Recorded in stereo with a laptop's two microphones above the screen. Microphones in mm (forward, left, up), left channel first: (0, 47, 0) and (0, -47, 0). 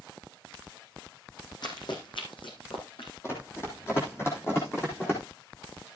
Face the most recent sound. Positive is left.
turn(degrees=30)  # may be behind; listen again after turning